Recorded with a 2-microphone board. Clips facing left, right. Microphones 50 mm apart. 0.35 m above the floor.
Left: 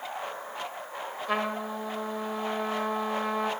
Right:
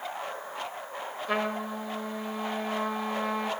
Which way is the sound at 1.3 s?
Centre (ahead or behind).